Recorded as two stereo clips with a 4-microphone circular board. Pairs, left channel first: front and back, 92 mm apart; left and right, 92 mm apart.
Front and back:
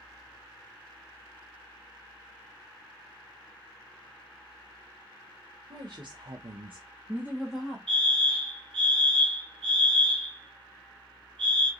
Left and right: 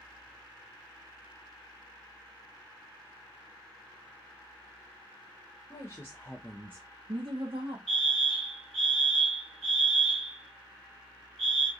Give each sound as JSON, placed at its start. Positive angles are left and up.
{"t": 5.7, "sound": "a woman speaking", "azimuth_deg": 145, "distance_m": 1.3}
{"t": 7.9, "sound": "a fire alarm", "azimuth_deg": 175, "distance_m": 3.0}